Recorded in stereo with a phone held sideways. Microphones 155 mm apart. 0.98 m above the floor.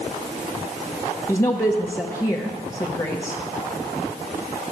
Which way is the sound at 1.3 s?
20° left (ahead or behind).